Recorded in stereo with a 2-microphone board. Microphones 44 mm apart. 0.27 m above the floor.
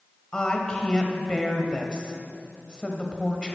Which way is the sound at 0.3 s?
20° left (ahead or behind).